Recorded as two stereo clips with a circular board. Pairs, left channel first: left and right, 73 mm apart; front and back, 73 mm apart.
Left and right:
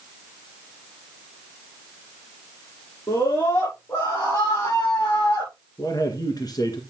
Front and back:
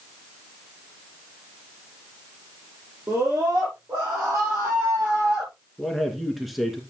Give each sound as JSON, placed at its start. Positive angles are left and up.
{"t": 3.1, "sound": "a scream", "azimuth_deg": 130, "distance_m": 7.0}
{"t": 5.8, "sound": "a man speaking", "azimuth_deg": 90, "distance_m": 2.5}